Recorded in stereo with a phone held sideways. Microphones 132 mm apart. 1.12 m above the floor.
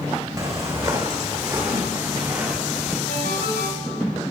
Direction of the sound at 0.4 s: 25° right (ahead or behind).